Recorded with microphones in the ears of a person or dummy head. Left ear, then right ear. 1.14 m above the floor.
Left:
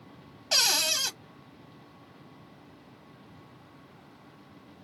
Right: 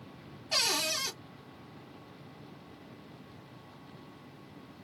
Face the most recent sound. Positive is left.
turn(degrees=70)  # may be behind; listen again after turning